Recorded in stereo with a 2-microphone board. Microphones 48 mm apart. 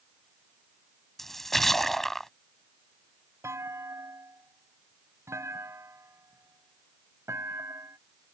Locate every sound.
1.2 s a splash: 5° left (ahead or behind)
3.4 s a clunk: 80° right